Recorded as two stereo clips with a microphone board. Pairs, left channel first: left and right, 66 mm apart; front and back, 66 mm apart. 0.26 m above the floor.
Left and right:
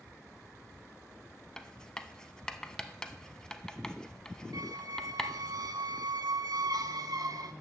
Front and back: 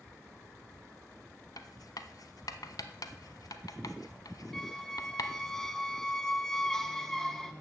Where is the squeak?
80° right, 0.6 m.